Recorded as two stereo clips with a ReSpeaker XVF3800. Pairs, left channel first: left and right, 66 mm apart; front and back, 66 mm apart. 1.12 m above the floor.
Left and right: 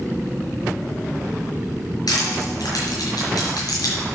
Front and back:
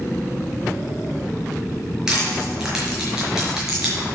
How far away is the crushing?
About 5 m.